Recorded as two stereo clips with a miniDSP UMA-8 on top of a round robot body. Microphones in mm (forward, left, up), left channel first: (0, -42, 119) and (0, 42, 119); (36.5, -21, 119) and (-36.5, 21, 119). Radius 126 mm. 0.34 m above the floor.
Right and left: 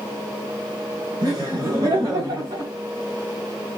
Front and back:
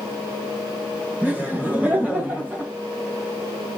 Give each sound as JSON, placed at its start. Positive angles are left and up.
{"t": 1.2, "sound": "laughter", "azimuth_deg": 80, "distance_m": 3.0}